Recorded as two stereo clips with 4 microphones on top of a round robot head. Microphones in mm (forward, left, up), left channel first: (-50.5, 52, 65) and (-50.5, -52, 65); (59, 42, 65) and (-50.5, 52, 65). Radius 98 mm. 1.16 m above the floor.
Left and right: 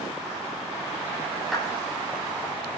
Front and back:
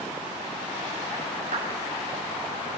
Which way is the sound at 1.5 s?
Straight behind.